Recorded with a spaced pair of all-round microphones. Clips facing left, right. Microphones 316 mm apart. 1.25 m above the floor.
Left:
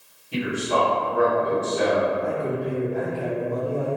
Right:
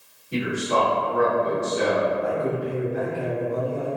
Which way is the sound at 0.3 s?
40° right (ahead or behind).